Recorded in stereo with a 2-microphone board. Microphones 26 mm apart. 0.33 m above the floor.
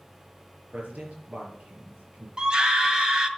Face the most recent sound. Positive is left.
turn(degrees=-30)  # may be behind; listen again after turning